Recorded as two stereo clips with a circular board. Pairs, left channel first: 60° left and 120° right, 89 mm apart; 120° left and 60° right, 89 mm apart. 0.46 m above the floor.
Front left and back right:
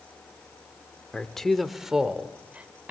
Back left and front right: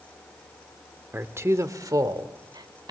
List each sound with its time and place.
1.1 s a man speaking: 15° right, 1.1 m; by 2.9 s 50° right, 1.8 m